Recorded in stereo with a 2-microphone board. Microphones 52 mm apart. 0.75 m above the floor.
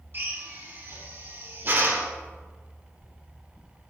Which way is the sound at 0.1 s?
45° right (ahead or behind).